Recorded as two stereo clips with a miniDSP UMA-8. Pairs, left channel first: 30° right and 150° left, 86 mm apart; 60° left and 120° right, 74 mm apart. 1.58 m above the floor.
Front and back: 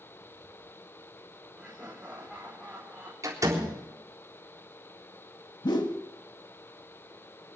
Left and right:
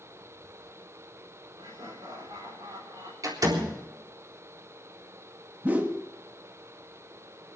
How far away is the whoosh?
About 1.5 m.